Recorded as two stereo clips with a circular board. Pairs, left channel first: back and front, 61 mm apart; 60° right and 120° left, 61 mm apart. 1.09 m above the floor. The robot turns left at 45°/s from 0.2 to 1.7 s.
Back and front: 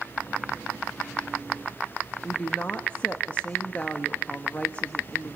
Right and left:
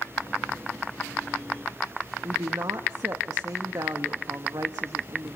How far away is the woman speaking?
About 1.4 m.